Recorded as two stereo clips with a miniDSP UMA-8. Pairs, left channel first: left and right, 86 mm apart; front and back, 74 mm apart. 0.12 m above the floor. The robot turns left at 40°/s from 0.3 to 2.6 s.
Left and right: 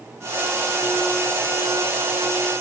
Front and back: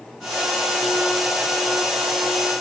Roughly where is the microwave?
No microwave in this recording.